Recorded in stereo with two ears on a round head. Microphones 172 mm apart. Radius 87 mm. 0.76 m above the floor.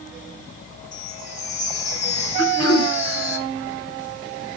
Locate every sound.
0.9 s a chime: 65° left (ahead or behind), 9.5 m
2.4 s throat clearing: 75° left (ahead or behind), 4.5 m